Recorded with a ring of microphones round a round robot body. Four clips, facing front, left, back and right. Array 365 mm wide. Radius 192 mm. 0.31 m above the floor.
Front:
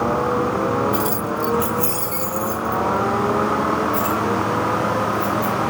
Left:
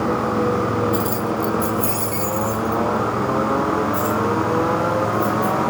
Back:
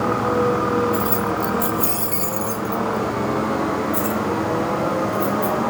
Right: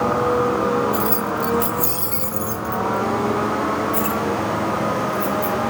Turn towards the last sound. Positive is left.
turn(degrees=-110)